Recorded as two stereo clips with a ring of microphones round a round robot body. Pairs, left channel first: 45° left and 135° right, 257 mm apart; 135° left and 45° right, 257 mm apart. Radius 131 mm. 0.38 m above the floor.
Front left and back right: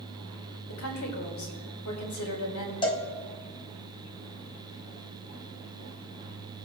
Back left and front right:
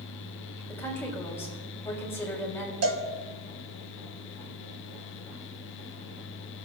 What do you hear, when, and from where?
0.7 s a woman speaking: 55° left, 3 m
2.8 s a cowbell: 25° right, 1.9 m